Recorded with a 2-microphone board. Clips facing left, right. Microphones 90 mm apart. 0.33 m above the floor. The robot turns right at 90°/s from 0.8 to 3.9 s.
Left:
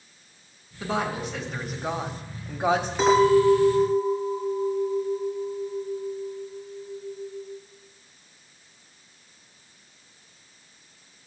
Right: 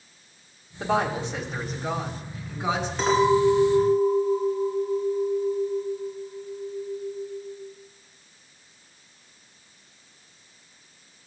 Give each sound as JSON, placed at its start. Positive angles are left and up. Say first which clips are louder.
{"t": 0.8, "sound": "a woman speaking", "louder": "right 3 dB", "azimuth_deg": -75, "distance_m": 1.6}
{"t": 3.0, "sound": "a clink", "louder": "left 2 dB", "azimuth_deg": 170, "distance_m": 3.0}